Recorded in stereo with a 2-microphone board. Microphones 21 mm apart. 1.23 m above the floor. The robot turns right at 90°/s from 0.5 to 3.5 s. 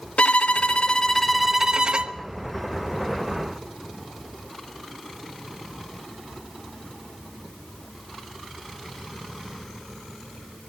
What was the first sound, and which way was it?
A violin, 100° left.